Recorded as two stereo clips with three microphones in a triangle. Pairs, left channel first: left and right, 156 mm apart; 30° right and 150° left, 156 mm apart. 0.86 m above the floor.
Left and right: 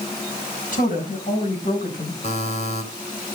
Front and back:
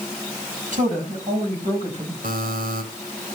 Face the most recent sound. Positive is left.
turn(degrees=130)